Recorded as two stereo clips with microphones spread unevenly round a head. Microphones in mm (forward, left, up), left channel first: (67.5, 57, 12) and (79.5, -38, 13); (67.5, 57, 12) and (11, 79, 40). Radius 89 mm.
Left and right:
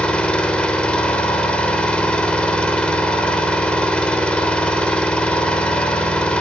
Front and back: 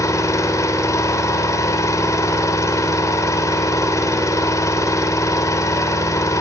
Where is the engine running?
20° left, 4 m.